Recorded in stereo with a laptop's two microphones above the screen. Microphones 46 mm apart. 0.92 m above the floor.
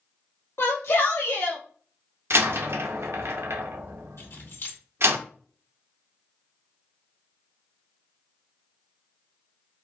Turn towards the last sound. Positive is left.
turn(degrees=70)  # may be behind; listen again after turning